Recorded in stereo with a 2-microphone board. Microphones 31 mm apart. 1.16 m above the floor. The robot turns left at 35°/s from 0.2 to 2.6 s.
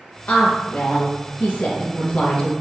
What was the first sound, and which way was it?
A woman speaking, 120° left.